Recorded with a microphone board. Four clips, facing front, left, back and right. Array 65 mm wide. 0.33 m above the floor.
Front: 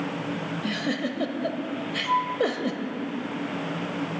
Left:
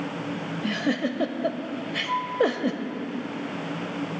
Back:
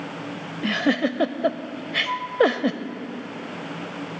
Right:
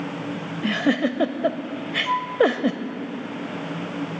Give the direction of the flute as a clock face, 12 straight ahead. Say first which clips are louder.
Right 3 dB, front 4 dB; 3 o'clock.